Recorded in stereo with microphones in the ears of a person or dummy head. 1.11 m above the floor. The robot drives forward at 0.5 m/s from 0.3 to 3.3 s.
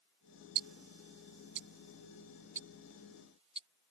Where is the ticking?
85° right; by 3.7 s 30° right (ahead or behind).